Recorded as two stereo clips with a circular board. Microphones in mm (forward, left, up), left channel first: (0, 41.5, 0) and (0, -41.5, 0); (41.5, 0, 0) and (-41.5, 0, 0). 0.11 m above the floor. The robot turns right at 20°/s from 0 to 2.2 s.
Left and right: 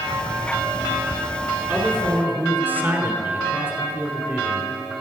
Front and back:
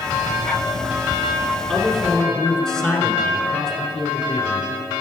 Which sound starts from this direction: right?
A man speaking, at 1.7 s.